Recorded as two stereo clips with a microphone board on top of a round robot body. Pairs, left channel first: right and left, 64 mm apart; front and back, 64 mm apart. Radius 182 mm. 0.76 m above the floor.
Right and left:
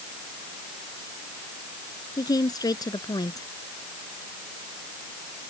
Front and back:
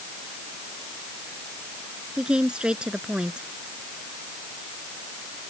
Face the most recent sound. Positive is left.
turn(degrees=-105)